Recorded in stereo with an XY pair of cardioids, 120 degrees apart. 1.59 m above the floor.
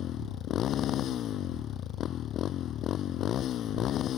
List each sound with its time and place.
0.0 s a motorcycle: 55° left